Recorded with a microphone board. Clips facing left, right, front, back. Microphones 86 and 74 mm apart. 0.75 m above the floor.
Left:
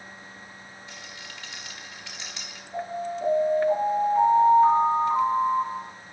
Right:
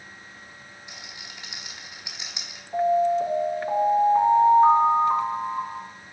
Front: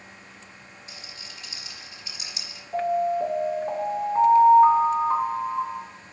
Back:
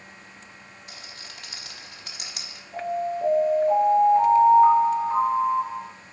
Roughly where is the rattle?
Behind.